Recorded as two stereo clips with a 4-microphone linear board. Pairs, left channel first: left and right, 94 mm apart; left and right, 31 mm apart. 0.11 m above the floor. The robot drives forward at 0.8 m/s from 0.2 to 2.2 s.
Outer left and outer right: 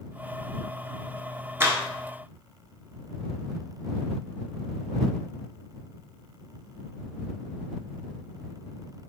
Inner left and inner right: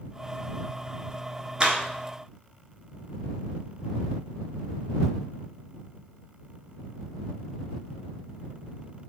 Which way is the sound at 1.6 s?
25° right (ahead or behind).